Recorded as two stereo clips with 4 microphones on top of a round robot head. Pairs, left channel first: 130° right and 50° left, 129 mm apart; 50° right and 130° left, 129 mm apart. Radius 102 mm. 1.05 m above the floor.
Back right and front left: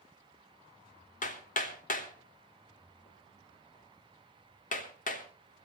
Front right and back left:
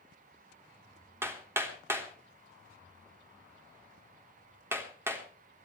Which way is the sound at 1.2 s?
155° right.